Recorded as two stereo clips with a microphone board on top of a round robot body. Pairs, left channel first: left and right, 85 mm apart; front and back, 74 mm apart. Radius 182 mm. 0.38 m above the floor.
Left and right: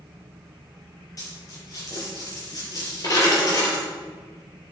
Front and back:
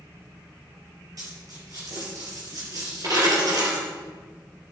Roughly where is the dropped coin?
Behind left.